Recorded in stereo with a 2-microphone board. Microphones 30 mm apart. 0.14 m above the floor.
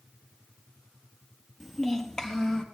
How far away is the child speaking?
About 1.7 m.